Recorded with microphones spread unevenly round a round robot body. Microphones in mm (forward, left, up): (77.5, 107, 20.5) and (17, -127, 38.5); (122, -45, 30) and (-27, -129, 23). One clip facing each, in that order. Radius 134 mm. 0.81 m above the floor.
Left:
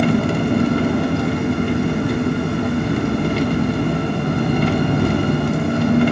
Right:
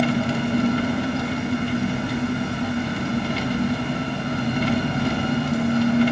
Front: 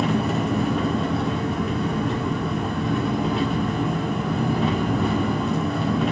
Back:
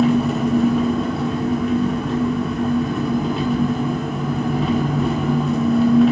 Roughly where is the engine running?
Behind left.